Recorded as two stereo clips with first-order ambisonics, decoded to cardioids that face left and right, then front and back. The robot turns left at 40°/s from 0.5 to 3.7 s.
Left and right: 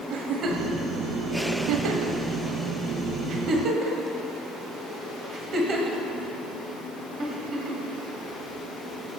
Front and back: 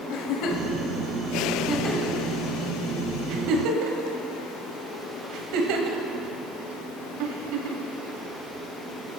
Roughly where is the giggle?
Ahead right.